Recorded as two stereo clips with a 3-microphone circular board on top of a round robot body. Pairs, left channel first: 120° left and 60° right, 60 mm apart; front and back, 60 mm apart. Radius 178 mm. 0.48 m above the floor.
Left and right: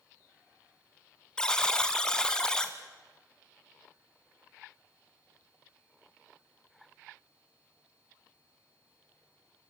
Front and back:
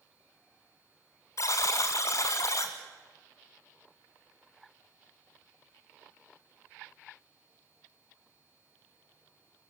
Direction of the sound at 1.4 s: 40° left.